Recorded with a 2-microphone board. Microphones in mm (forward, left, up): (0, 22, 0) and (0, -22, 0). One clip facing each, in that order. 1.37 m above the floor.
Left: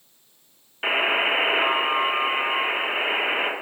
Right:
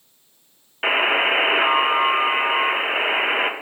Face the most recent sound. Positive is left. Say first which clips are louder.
# right 3 dB
turn(degrees=-20)  # may be behind; listen again after turning